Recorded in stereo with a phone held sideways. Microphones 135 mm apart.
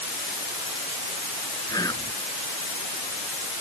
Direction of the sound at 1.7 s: 30° left (ahead or behind).